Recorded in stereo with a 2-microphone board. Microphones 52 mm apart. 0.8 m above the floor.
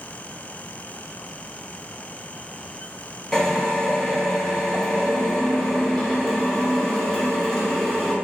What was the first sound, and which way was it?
A drill, 10° left (ahead or behind).